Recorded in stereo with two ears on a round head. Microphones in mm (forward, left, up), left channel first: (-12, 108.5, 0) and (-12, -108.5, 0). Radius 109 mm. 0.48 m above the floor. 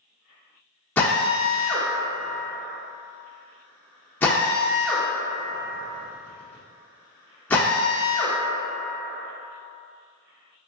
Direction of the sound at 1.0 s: 10° left (ahead or behind).